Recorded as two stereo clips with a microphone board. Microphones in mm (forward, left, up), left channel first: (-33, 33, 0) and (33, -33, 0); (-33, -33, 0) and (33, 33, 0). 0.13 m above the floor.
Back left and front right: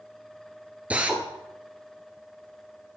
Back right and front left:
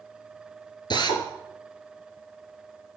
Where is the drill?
115° right, 1.5 m.